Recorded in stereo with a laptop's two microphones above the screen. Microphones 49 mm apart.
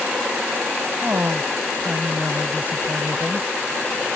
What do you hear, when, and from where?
1.0 s a woman speaking: 40° right (ahead or behind); by 3.5 s 30° right (ahead or behind)